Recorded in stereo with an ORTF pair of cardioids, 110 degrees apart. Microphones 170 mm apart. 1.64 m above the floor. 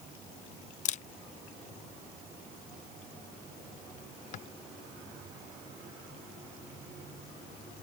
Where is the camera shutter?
50° left.